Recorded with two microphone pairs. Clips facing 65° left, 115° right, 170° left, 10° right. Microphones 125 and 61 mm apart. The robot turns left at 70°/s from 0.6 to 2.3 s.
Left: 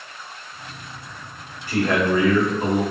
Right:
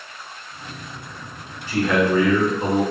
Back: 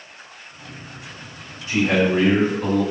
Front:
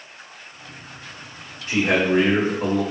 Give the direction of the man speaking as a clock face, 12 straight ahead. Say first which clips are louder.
Right 1 dB, back 1 dB; 11 o'clock.